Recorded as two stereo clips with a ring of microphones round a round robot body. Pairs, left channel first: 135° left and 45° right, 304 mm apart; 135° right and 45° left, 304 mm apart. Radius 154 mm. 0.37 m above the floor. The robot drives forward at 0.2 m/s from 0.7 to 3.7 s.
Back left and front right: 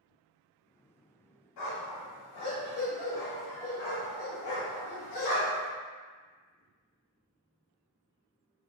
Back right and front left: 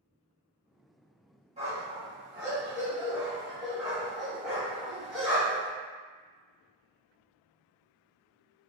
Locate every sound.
1.6 s a dog barking: 115° left, 1.1 m; by 5.7 s 135° left, 1.3 m